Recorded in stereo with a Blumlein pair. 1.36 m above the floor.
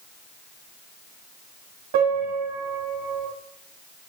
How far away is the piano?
About 5.5 m.